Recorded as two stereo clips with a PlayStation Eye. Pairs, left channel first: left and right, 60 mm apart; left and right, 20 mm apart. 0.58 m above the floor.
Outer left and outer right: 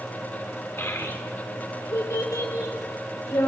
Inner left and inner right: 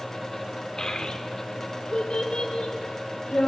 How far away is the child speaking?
About 0.7 m.